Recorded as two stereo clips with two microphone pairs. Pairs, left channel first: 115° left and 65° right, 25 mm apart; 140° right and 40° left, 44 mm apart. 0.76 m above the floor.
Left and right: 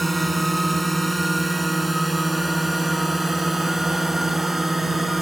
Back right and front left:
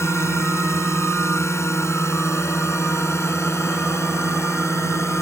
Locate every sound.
0.0 s a drone: 155° right; by 5.2 s 145° right